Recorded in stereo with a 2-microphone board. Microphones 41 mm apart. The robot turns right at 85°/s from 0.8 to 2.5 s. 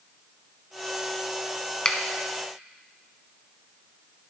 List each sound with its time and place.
1.9 s a finger snap: 20° left (ahead or behind), 0.9 m